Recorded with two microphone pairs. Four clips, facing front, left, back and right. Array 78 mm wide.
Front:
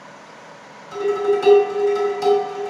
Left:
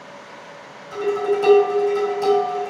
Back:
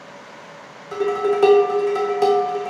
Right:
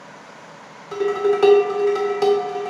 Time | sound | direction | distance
0.9 | dishes clattering | 140° right | 1.1 m